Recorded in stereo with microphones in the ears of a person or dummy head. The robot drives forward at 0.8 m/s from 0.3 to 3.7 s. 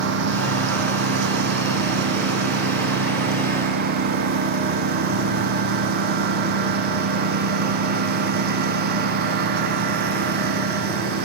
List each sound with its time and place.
0.0 s a lawn mower: 65° right (ahead or behind); by 11.2 s 55° right (ahead or behind)